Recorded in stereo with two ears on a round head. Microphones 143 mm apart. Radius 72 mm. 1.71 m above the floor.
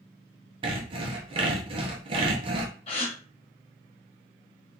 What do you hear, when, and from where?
0.6 s sawing: 35° right (ahead or behind), 0.9 m
2.9 s a gasp: 40° left (ahead or behind), 1.1 m